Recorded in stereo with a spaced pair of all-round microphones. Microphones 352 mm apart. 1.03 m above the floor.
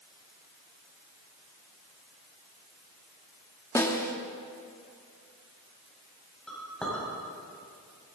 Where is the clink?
Centre (ahead or behind), 4 m.